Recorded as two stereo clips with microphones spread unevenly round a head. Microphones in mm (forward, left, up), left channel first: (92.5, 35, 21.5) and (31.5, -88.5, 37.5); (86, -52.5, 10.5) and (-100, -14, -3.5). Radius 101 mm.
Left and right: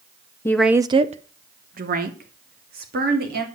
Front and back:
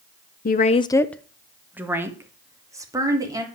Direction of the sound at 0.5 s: 10° right.